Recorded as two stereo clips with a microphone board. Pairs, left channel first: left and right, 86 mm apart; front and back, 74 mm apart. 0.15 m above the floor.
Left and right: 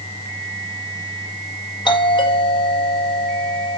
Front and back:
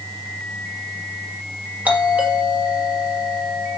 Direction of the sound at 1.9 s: 110° left.